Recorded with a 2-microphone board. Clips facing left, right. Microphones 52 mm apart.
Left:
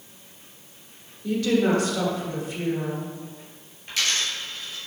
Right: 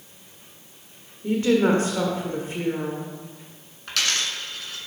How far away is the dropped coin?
About 1.8 m.